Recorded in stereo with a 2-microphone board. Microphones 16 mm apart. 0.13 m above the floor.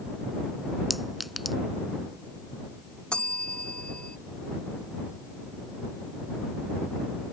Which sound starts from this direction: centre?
A clink, at 0.9 s.